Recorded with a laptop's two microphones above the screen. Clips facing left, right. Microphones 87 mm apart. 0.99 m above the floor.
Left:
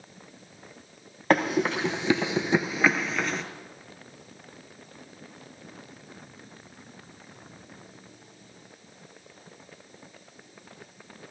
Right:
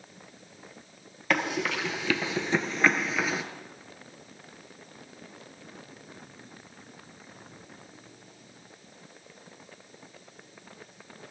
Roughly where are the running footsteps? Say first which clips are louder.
Left 5 dB; left.